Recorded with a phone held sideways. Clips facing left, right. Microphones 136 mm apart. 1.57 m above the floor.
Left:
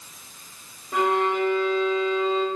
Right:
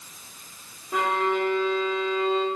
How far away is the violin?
About 0.7 m.